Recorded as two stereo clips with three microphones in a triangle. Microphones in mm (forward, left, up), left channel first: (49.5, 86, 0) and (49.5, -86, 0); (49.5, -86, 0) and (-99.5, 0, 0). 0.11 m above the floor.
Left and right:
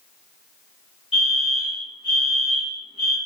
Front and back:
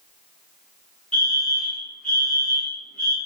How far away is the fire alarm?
About 3 m.